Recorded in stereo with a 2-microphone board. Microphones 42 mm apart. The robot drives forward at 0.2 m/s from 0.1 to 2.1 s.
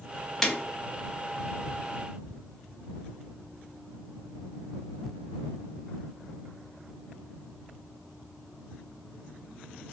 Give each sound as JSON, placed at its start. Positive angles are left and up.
{"t": 0.4, "sound": "breaking glass", "side_deg": 15, "distance_m": 0.6}